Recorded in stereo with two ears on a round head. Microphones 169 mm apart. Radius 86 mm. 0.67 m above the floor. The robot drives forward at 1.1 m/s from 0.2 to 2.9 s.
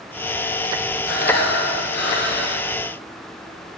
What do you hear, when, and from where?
1.1 s breathing: 45° left (ahead or behind), 5 m; by 2.7 s 65° left (ahead or behind), 4 m